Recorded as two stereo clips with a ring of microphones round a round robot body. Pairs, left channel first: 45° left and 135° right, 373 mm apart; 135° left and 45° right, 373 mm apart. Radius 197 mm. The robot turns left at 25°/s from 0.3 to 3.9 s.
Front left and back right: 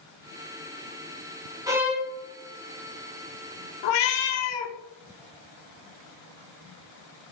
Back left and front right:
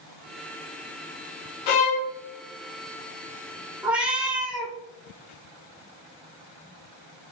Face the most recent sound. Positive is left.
turn(degrees=40)